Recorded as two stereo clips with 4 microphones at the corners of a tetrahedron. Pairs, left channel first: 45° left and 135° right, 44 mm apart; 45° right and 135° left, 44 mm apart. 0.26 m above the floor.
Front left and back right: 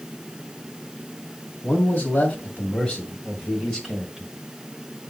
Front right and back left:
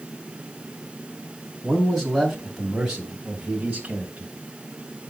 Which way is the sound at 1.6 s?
30° left.